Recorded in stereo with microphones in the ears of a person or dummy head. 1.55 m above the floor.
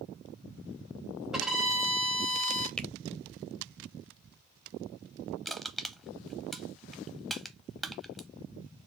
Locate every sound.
1.3 s a violin: centre (ahead or behind), 0.8 m
2.8 s a finger snap: 5° left (ahead or behind), 0.7 m
5.5 s crushing: centre (ahead or behind), 0.7 m